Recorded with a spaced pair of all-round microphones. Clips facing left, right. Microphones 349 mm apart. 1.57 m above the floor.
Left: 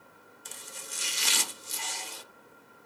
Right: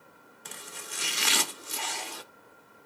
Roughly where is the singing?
No singing in this recording.